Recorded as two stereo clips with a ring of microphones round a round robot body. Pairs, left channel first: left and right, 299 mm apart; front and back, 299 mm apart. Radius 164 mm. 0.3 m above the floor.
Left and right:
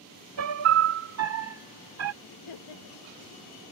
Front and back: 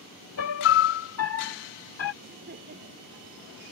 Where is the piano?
45° right.